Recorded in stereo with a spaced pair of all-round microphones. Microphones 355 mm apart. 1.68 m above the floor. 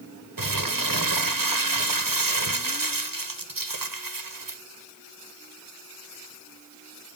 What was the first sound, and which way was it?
Crumpling, 65° right (ahead or behind).